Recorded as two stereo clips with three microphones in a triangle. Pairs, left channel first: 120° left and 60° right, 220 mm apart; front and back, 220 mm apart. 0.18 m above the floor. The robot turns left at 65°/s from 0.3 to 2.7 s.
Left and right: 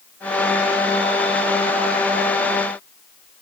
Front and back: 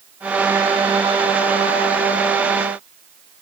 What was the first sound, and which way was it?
Only background noise.